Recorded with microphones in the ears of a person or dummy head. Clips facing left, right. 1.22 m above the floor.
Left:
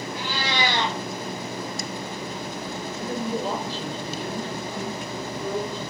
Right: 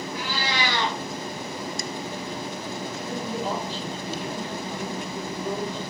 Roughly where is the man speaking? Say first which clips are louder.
Left 5 dB; left.